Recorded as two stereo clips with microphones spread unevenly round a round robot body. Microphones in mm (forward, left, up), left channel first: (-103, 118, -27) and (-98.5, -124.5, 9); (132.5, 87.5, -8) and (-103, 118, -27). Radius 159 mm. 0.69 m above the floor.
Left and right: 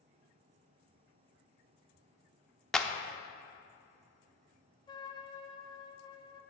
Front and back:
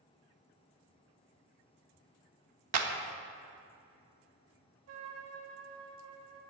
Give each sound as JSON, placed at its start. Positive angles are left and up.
{"t": 2.7, "sound": "a clap", "azimuth_deg": 175, "distance_m": 0.9}
{"t": 4.9, "sound": "a trumpet", "azimuth_deg": 165, "distance_m": 1.5}